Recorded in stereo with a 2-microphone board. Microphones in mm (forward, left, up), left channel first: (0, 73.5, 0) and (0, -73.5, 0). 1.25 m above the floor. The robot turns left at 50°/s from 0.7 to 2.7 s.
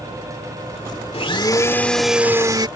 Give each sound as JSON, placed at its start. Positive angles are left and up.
{"t": 1.1, "sound": "a blender", "azimuth_deg": 45}